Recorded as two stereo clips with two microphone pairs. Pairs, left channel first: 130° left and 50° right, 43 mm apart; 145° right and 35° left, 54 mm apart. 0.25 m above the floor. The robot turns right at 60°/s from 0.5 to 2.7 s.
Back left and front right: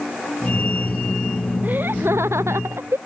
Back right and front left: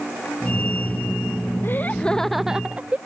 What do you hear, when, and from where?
1.6 s laughter: 100° right; by 3.0 s 35° right